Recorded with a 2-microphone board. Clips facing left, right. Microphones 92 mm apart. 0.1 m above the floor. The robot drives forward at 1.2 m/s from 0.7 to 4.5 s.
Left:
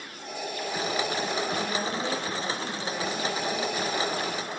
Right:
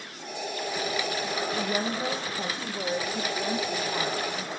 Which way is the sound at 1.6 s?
35° right (ahead or behind).